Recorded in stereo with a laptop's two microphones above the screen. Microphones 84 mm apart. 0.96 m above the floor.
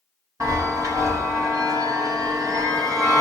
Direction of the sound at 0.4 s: 40° right (ahead or behind).